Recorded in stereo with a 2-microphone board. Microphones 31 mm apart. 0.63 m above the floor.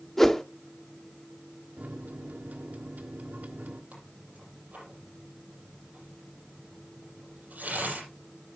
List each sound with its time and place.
0.2 s a whoosh: 15° left (ahead or behind), 0.6 m
1.8 s a microwave: 60° right (ahead or behind), 1.2 m
3.9 s tearing paper: 50° right (ahead or behind), 6.5 m